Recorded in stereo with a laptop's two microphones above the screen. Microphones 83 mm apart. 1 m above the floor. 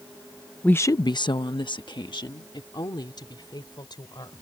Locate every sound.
0.6 s a woman speaking: 15° left (ahead or behind); by 4.3 s 60° left (ahead or behind)